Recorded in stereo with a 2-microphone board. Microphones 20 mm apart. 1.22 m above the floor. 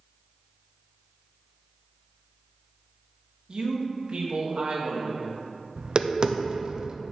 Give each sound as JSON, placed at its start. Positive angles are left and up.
{"t": 3.5, "sound": "a man speaking", "side_deg": -50, "distance_m": 1.5}
{"t": 5.8, "sound": "tapping", "side_deg": -45, "distance_m": 0.6}